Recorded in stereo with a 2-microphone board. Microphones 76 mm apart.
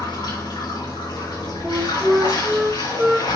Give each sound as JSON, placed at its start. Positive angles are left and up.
{"t": 0.0, "sound": "running water", "side_deg": 75, "distance_m": 4.5}
{"t": 1.6, "sound": "a flute", "side_deg": -10, "distance_m": 3.5}